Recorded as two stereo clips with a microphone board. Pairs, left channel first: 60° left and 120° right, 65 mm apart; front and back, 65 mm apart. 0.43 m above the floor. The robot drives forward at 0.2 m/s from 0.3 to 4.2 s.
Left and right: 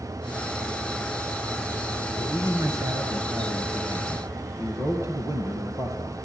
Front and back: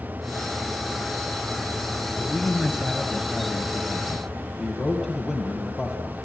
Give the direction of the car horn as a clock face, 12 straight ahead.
I don't hear a car horn.